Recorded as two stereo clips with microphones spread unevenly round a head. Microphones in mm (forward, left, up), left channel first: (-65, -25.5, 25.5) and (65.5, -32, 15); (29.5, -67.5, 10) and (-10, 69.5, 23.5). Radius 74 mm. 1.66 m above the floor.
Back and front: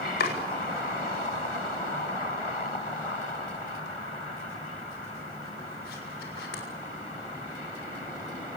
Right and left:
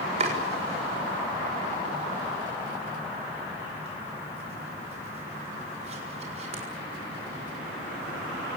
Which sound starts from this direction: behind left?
Chopping, at 0.2 s.